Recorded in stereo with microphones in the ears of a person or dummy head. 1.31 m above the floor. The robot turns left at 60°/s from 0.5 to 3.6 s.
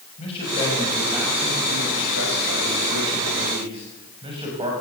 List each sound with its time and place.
0.2 s a man speaking: 30° left, 6.5 m; by 4.7 s 155° right, 6.5 m